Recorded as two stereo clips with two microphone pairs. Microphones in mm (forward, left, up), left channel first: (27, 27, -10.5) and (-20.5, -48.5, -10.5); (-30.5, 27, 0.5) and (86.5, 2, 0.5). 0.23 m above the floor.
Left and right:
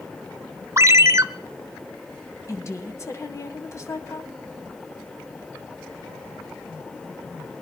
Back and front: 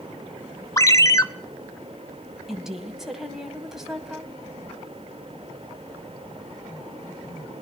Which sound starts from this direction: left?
A woman speaking, at 2.5 s.